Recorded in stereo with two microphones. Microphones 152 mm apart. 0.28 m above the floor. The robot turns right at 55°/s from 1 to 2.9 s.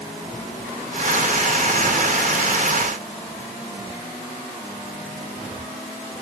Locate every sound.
Only background noise.